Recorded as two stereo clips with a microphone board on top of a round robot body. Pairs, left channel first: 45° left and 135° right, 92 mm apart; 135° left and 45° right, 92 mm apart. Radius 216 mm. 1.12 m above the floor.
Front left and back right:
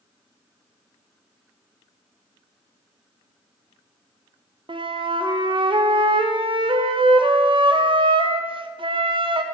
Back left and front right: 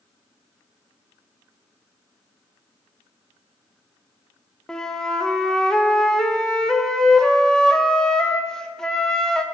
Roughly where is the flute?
Behind right.